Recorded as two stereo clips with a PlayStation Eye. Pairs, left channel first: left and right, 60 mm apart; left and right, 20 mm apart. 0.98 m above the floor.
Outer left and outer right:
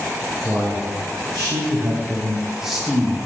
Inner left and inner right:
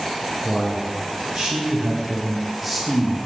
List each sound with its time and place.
0.4 s a man speaking: 55° right (ahead or behind), 1.6 m; by 3.2 s 5° left (ahead or behind), 1.4 m